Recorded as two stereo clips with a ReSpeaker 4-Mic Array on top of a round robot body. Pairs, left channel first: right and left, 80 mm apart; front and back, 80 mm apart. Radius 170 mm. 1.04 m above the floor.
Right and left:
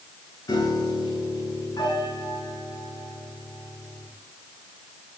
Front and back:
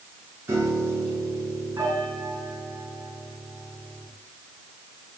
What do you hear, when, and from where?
0.5 s a piano: 120° right, 9 m